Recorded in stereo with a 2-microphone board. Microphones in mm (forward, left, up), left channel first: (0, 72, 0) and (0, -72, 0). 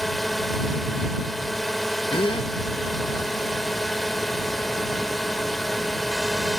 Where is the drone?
Centre (ahead or behind).